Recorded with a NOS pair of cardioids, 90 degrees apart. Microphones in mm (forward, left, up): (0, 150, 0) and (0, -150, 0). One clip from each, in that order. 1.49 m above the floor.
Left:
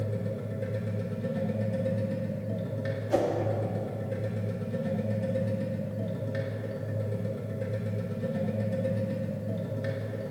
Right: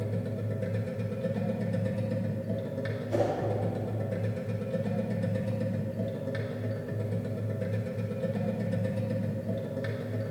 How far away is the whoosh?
About 2.5 m.